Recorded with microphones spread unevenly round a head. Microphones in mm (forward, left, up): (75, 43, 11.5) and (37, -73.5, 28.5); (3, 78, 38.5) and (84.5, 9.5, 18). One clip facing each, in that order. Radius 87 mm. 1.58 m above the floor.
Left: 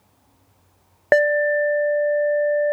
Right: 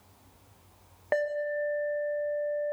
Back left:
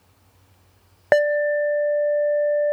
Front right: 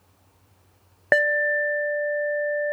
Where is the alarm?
80° left, 0.9 m.